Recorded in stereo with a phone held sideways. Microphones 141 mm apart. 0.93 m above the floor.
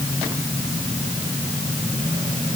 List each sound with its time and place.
Only background noise.